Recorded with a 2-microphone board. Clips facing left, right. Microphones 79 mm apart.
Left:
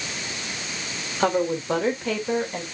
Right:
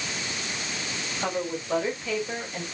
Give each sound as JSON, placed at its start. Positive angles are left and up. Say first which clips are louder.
{"t": 1.2, "sound": "a woman speaking", "louder": "left 8 dB", "side_deg": 75, "distance_m": 4.0}